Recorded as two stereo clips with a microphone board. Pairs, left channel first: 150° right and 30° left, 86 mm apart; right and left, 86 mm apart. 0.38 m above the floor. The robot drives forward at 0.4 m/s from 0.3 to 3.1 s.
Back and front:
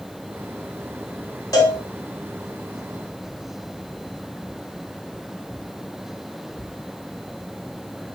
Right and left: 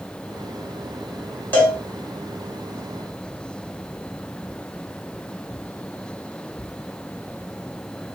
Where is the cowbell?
145° right, 1.5 m; by 1.8 s 150° right, 1.5 m.